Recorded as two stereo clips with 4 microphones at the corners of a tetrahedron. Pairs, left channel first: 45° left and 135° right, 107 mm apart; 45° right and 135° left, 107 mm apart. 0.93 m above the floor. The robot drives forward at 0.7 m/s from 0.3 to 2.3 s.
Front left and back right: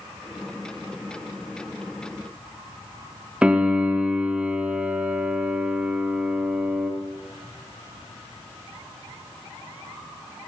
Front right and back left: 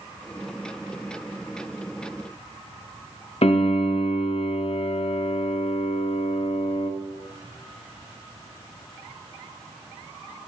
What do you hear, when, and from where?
3.4 s a piano: 55° right, 0.6 m